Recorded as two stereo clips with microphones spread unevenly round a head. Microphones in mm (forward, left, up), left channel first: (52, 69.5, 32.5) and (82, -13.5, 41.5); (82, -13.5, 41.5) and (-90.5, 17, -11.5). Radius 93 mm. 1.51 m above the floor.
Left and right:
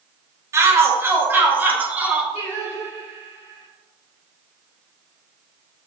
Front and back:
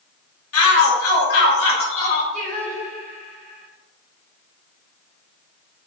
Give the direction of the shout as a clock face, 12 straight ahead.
12 o'clock.